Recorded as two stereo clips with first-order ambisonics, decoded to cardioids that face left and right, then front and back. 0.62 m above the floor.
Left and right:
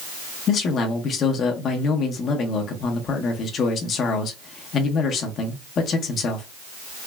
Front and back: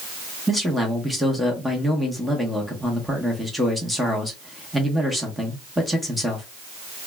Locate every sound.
0.5 s a man speaking: 95° left, 0.7 m